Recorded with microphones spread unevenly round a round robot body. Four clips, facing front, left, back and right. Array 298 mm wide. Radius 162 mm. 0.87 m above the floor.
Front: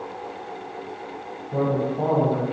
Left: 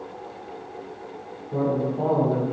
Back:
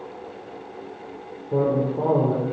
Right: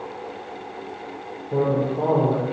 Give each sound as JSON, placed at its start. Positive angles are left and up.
{"t": 1.5, "sound": "a man speaking", "azimuth_deg": -145, "distance_m": 4.0}